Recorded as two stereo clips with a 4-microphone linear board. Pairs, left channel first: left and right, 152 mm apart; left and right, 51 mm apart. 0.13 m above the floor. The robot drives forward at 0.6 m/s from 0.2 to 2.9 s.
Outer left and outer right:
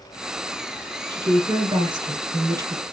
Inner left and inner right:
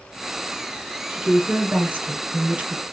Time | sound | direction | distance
1.1 | a woman speaking | 30° right (ahead or behind) | 1.3 m